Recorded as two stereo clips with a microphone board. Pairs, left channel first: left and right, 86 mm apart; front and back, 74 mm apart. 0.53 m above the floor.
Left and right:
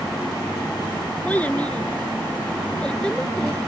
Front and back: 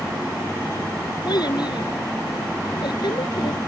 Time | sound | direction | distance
1.2 | a child speaking | 15° left | ?